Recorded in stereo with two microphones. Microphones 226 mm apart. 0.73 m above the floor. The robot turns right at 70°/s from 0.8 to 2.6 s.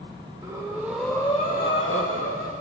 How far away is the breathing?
About 1.0 m.